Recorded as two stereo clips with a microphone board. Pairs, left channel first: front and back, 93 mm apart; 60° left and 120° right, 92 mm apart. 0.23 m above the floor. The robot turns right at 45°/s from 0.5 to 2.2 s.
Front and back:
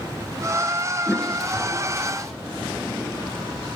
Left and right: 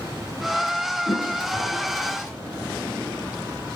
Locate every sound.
1.1 s a toilet flushing: 75° left, 1.3 m; by 2.3 s 125° left, 1.3 m